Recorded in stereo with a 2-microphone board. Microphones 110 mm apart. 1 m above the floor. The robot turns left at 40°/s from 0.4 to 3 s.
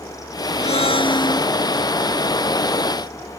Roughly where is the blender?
Ahead left.